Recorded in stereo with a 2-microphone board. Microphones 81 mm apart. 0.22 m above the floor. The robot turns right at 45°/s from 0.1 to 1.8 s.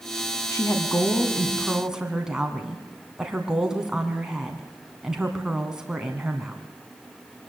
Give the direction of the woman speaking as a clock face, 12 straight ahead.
8 o'clock.